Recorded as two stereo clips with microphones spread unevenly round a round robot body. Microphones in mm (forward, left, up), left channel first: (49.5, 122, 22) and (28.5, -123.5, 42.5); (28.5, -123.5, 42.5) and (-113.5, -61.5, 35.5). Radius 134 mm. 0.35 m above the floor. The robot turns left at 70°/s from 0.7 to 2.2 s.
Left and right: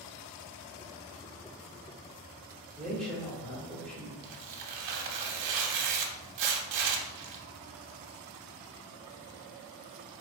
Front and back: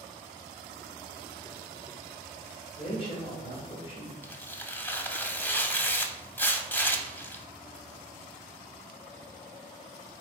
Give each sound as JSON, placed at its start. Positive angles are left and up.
{"t": 2.8, "sound": "a man speaking", "azimuth_deg": 5, "distance_m": 1.3}
{"t": 4.2, "sound": "tearing paper", "azimuth_deg": -105, "distance_m": 0.6}